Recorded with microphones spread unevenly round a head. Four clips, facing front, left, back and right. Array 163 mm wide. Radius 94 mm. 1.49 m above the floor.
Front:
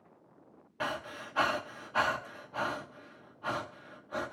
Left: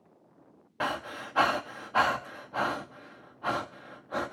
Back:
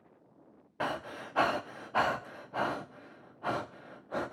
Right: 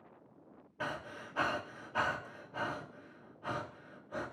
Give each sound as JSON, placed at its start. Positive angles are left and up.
{"t": 0.8, "sound": "breathing", "azimuth_deg": 150, "distance_m": 1.1}